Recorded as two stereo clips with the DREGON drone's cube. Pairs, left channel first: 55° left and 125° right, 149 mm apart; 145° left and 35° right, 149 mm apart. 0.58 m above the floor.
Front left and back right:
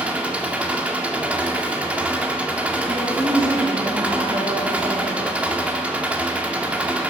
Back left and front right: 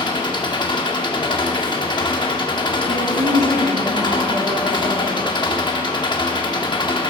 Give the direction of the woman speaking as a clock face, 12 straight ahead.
2 o'clock.